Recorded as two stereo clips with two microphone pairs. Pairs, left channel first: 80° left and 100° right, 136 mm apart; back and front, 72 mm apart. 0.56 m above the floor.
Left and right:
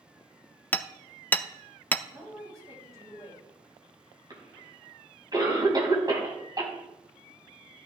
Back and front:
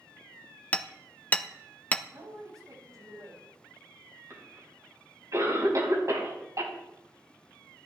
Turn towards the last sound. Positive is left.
turn(degrees=-40)